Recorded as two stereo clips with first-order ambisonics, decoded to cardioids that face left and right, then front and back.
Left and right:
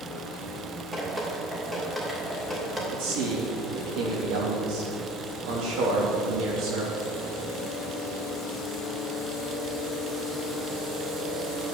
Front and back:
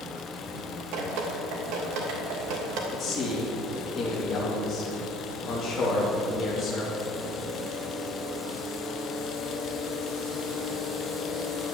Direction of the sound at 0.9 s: 170° right.